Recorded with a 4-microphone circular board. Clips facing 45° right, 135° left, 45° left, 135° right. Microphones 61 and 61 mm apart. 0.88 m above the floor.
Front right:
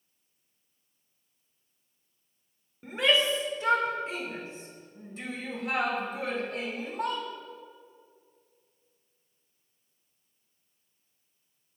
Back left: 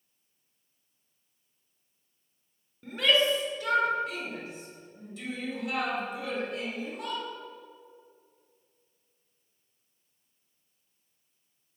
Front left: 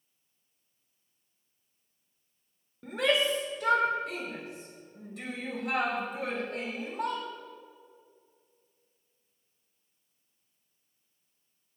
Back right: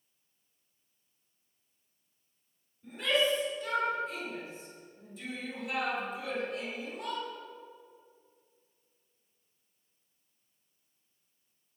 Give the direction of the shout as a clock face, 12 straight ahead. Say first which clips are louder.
Even, front left 2 dB; 11 o'clock.